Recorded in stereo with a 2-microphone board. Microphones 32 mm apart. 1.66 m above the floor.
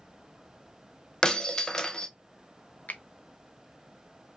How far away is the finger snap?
About 0.6 m.